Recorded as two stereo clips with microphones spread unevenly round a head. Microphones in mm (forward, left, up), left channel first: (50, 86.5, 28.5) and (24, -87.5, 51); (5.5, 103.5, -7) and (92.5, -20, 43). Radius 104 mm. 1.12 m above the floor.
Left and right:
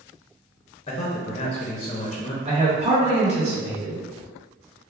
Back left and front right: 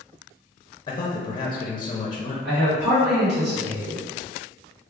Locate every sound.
0.9 s a man speaking: 110° left, 0.5 m
2.5 s a man speaking: 45° right, 1.6 m